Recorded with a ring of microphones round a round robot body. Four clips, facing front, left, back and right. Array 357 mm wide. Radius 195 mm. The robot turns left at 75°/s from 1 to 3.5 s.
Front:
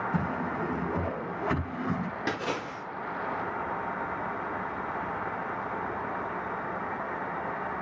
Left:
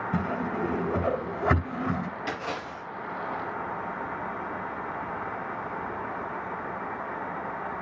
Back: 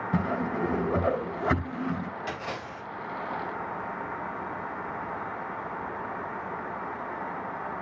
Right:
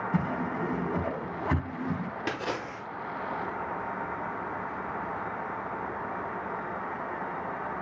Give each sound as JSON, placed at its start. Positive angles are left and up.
{"t": 0.1, "sound": "a whoosh", "azimuth_deg": 145, "distance_m": 3.0}
{"t": 2.3, "sound": "a splash", "azimuth_deg": -35, "distance_m": 5.0}